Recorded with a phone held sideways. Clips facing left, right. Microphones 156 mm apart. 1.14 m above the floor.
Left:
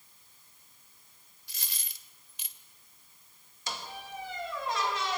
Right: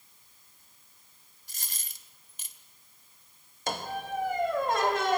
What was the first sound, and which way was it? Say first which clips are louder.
A dropped coin: right 1 dB; 45° right (ahead or behind).